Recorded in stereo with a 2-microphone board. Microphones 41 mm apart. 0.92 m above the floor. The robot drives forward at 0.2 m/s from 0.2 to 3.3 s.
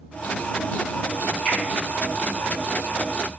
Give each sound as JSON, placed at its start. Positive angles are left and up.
{"t": 1.4, "sound": "a finger snap", "side_deg": 45, "distance_m": 1.3}